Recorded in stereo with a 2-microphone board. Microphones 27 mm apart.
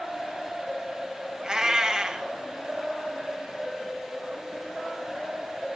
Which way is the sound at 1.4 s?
15° right (ahead or behind).